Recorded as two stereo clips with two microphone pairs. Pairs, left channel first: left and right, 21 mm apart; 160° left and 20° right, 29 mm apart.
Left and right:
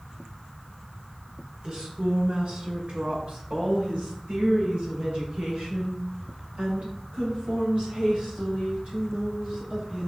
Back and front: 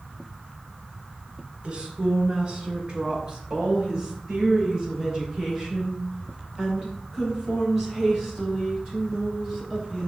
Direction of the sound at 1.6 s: 70° right.